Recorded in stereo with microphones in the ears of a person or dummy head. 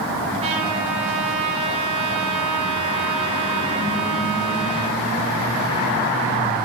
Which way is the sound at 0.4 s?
35° right (ahead or behind).